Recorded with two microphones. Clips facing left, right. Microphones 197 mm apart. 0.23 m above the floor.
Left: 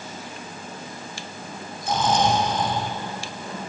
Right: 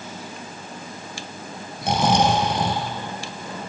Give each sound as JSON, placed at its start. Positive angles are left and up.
{"t": 1.8, "sound": "snoring", "side_deg": -75, "distance_m": 3.5}